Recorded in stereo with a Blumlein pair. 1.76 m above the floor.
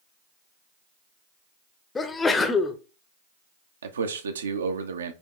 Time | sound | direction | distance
1.9 | a sneeze | 15° left | 0.6 m
3.8 | a man speaking | 70° right | 0.6 m